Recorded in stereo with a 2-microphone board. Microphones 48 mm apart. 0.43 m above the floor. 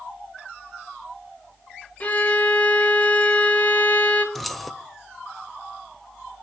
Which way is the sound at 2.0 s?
35° left (ahead or behind).